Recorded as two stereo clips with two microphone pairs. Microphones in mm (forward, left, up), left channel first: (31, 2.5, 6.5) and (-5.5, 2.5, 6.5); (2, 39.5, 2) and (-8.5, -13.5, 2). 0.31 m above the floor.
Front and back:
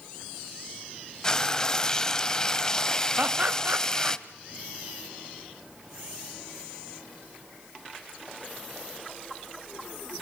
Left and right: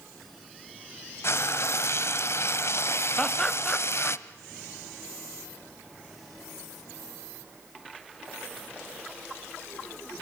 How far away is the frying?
About 1.1 m.